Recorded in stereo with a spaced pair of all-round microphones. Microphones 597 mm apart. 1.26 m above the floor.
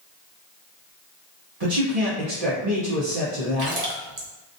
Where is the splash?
80° right, 0.8 m.